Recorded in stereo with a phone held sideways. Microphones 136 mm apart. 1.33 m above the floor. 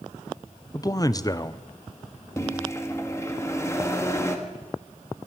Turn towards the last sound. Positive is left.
turn(degrees=20)  # may be behind; listen again after turning